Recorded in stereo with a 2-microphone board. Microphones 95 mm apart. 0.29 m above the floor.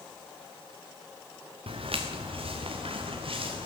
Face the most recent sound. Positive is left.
turn(degrees=-70)  # may be behind; listen again after turning